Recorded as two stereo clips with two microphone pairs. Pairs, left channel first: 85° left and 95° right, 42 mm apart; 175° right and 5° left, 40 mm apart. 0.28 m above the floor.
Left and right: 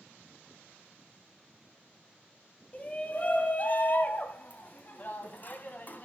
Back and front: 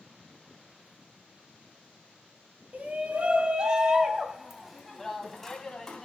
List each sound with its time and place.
2.7 s a shout: 35° left, 2 m; by 6.0 s 120° left, 2.5 m